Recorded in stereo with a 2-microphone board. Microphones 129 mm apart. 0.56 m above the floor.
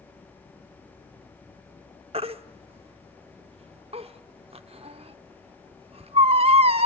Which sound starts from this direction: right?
A baby crying, at 2.1 s.